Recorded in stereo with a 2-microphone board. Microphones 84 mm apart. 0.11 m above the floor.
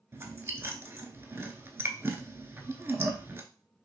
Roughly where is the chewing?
Right.